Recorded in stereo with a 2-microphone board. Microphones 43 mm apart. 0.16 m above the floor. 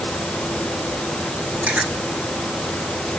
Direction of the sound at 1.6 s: 35° right (ahead or behind).